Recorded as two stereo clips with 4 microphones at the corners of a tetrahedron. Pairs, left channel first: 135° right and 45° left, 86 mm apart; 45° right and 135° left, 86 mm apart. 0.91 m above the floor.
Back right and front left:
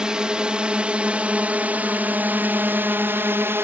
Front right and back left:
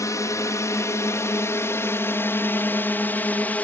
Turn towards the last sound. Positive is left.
turn(degrees=10)